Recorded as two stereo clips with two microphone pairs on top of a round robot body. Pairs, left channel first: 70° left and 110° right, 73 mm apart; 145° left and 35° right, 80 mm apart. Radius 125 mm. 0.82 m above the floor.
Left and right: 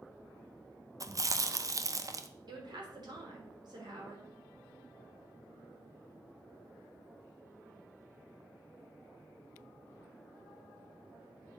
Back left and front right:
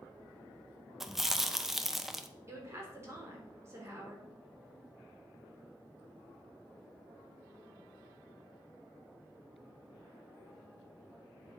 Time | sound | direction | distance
1.0 | chewing | 120° right | 1.0 m
2.5 | a woman speaking | 95° right | 3.5 m